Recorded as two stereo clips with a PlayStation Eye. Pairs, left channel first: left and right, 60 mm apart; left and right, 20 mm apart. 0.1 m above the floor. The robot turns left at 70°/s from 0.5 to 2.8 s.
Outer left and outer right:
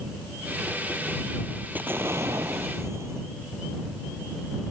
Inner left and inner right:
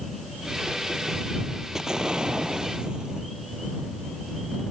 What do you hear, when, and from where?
1.8 s an explosion: 35° right; by 3.3 s 110° right